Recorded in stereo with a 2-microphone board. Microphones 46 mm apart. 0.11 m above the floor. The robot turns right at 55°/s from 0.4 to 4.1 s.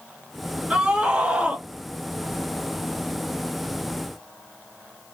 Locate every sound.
0.7 s a scream: 25° right (ahead or behind), 1.2 m; by 1.6 s 15° right (ahead or behind), 1.2 m